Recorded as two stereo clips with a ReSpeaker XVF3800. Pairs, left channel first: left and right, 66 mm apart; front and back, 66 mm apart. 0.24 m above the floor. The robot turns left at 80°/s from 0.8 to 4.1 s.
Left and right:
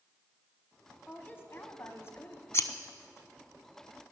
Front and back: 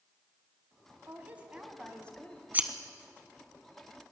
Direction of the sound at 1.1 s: 150° left.